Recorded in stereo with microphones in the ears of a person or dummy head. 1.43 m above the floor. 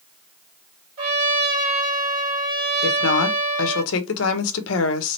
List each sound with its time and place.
1.0 s a trumpet: 45° right (ahead or behind), 1.7 m
2.8 s a woman speaking: 75° left (ahead or behind), 1.2 m